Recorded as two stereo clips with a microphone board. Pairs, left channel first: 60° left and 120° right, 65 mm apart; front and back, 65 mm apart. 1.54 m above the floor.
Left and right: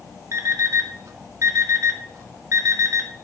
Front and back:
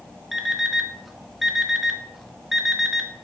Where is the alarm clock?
95° right, 1.5 m.